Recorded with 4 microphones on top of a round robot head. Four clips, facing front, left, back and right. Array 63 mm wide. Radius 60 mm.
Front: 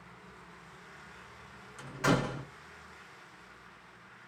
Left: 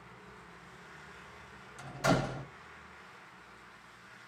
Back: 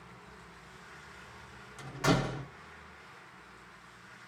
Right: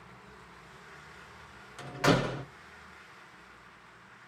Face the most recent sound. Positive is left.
turn(degrees=-85)